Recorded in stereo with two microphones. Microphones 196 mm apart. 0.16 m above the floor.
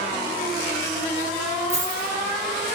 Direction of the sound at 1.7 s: 35° right (ahead or behind).